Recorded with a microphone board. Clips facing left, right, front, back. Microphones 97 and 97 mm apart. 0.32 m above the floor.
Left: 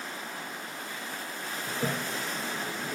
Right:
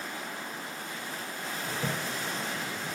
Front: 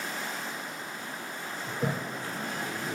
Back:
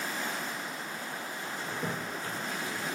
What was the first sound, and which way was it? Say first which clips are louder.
A toilet flushing: left 2 dB, front 5 dB; 35° left.